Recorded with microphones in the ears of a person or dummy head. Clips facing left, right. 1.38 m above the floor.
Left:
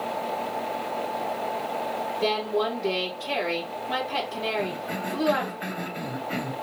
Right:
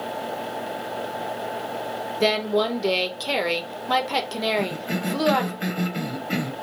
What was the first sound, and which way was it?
A woman speaking, 80° right.